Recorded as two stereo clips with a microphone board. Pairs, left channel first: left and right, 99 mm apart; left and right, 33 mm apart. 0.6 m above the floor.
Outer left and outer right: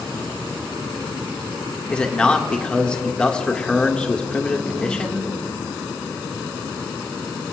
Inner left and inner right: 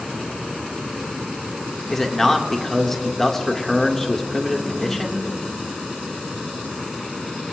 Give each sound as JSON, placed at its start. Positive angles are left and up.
{"t": 1.9, "sound": "a man speaking", "side_deg": 10, "distance_m": 1.3}